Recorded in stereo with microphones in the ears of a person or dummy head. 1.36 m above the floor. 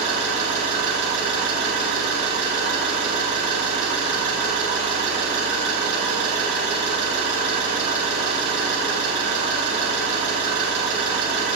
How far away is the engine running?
About 4 m.